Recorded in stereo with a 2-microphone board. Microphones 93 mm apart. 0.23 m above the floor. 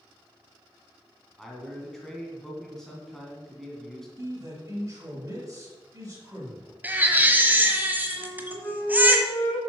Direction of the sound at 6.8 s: 20° right (ahead or behind).